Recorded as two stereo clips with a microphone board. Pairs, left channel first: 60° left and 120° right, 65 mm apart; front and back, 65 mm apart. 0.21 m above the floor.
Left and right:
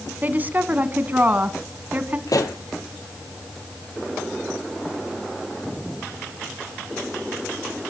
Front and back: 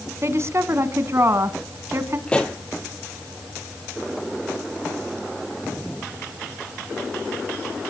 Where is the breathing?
I don't hear breathing.